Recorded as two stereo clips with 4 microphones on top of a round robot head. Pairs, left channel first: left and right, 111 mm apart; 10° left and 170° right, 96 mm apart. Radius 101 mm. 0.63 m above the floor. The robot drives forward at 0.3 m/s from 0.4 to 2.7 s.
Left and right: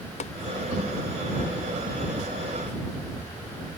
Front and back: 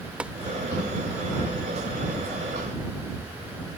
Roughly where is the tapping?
Behind left.